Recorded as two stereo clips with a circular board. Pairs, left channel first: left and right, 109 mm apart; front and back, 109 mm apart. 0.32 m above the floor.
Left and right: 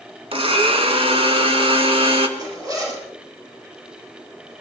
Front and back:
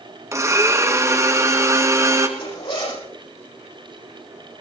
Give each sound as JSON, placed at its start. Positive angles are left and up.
{"t": 0.3, "sound": "a blender", "azimuth_deg": -120, "distance_m": 2.0}
{"t": 2.4, "sound": "a zipper", "azimuth_deg": -35, "distance_m": 9.5}